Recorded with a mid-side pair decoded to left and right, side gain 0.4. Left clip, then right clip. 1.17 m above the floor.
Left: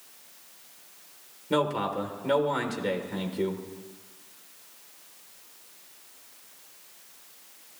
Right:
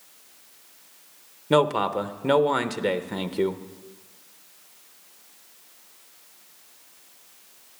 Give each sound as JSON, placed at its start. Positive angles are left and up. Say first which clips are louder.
{"t": 1.5, "sound": "a man speaking", "louder": "right 6 dB", "azimuth_deg": -65, "distance_m": 0.8}